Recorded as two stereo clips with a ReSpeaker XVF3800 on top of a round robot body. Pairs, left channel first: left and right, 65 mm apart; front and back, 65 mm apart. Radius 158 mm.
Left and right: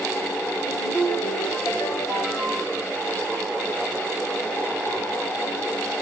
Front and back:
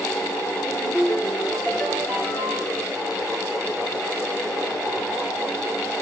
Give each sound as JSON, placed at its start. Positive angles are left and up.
{"t": 0.7, "sound": "a ringtone", "azimuth_deg": 55, "distance_m": 4.0}